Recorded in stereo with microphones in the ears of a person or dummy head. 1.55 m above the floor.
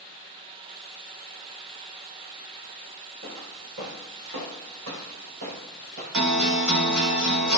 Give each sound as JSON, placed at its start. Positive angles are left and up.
{"t": 3.2, "sound": "footsteps", "side_deg": -70, "distance_m": 4.5}
{"t": 6.1, "sound": "a guitar", "side_deg": -80, "distance_m": 3.0}